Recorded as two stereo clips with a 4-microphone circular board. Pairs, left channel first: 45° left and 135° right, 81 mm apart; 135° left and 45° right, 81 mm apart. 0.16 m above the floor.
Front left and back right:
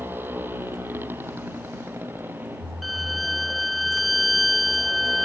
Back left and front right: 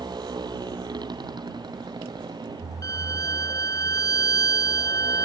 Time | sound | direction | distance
0.0 | a motorcycle | 70° right | ?
2.8 | a violin | 135° left | ?